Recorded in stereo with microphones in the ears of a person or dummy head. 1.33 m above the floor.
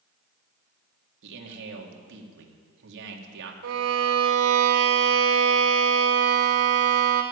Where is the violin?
80° right, 1.7 m.